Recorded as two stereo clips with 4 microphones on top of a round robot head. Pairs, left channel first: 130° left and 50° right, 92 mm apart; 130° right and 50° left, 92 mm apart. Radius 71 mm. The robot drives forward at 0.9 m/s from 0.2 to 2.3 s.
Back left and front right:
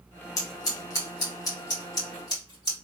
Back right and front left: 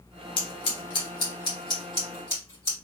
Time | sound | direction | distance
0.4 | scissors | 170° right | 1.2 m